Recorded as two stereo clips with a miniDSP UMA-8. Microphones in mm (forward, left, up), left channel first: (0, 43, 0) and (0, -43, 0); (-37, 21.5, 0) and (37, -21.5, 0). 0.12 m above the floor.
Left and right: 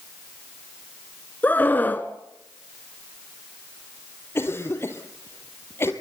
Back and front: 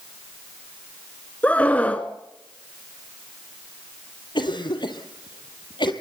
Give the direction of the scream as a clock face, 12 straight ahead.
8 o'clock.